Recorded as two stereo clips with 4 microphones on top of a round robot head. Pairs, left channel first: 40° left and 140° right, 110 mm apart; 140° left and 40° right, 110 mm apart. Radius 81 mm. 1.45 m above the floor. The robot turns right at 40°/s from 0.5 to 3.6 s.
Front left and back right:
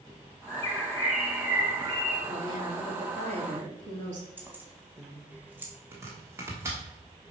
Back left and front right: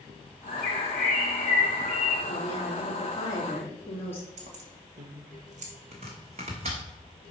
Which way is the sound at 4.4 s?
60° right.